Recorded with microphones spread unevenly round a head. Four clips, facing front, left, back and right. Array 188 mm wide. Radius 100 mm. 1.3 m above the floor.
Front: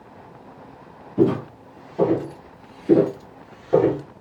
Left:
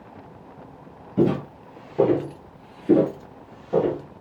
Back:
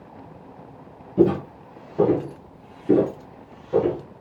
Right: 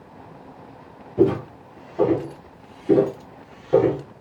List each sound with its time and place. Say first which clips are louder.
1.2 s footsteps: right 2 dB, back 1 dB; 130° left, 1.8 m; by 4.0 s 35° right, 1.3 m